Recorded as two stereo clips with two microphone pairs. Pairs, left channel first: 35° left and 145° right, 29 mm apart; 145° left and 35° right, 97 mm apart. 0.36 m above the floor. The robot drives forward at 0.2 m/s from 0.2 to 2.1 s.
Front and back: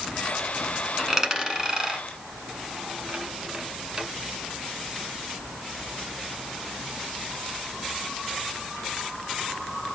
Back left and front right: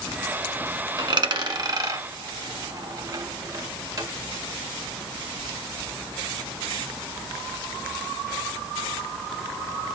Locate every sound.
1.0 s a dropped coin: 75° right, 1.0 m; by 4.1 s 85° right, 0.9 m